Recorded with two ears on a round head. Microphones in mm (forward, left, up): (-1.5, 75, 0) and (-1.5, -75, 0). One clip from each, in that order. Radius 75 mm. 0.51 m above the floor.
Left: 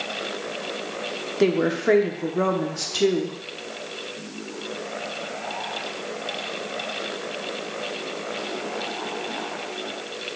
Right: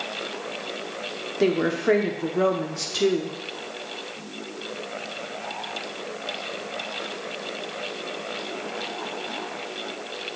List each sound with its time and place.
1.4 s a woman speaking: 5° left (ahead or behind), 0.7 m